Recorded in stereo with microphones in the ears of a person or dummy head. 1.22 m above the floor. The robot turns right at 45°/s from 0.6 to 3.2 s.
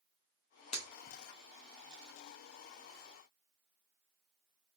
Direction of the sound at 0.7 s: 35° left (ahead or behind).